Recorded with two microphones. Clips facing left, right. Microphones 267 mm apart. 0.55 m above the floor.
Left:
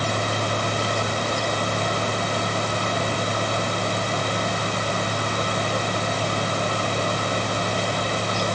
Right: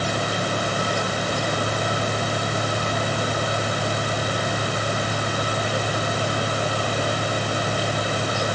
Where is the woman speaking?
I don't hear a woman speaking.